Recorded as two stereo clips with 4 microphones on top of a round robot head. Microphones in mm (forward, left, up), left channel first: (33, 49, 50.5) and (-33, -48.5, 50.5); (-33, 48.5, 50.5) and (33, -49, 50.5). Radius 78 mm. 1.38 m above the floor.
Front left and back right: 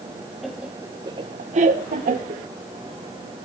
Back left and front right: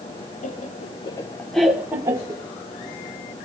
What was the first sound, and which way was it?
Laughter, 145° left.